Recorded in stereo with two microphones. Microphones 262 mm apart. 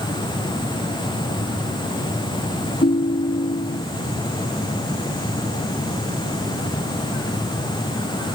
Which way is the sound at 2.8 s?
40° left (ahead or behind).